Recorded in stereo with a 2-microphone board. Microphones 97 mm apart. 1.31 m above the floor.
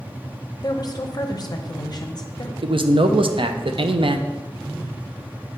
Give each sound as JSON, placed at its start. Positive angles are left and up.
{"t": 0.6, "sound": "a woman speaking", "side_deg": 45, "distance_m": 0.6}
{"t": 2.6, "sound": "a man speaking", "side_deg": -65, "distance_m": 0.5}